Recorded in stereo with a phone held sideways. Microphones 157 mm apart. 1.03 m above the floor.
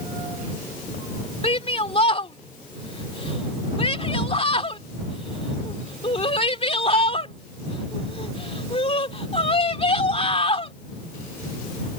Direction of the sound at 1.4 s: 40° left (ahead or behind).